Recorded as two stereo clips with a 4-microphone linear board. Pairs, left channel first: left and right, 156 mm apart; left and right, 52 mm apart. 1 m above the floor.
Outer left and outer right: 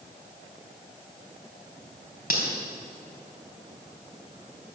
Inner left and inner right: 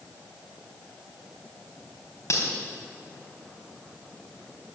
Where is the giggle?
I don't hear a giggle.